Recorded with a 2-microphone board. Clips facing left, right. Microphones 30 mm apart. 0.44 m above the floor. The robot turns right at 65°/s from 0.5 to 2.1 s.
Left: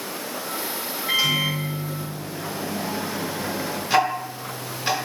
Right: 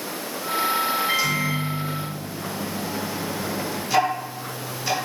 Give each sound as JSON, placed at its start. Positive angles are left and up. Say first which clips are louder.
{"t": 1.1, "sound": "a microwave", "louder": "left 1 dB", "azimuth_deg": 15, "distance_m": 1.1}
{"t": 3.9, "sound": "ticking", "louder": "left 1 dB", "side_deg": 35, "distance_m": 0.9}